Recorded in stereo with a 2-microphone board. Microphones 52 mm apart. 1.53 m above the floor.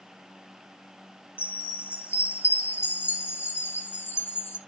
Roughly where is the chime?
Left.